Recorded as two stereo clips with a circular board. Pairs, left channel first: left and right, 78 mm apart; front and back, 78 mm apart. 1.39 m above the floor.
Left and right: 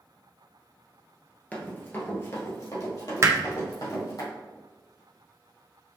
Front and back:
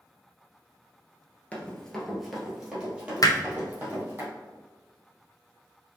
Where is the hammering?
35° right, 0.7 m.